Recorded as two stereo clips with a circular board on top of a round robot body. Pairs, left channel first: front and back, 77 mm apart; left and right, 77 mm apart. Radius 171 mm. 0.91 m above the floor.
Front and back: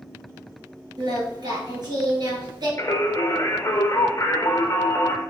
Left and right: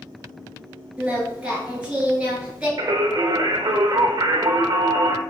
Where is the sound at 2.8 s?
55° right, 0.5 m.